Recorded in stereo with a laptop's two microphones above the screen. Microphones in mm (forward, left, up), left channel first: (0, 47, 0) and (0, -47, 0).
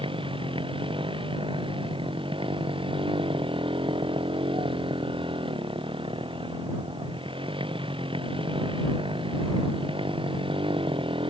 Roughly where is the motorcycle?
Right.